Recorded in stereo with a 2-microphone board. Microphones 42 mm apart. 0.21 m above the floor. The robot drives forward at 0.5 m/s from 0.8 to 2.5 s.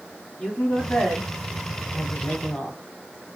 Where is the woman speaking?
20° left (ahead or behind), 1.2 m.